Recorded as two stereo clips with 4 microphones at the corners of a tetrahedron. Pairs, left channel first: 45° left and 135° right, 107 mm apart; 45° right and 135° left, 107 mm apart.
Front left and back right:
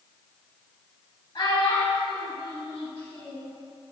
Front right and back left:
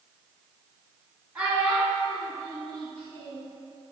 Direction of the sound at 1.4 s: 65° left.